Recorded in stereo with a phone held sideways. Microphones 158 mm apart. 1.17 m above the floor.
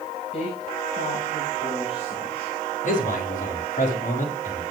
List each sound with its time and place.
0.3 s a woman speaking: 40° left (ahead or behind), 5.5 m
2.8 s a man speaking: 55° left (ahead or behind), 6.5 m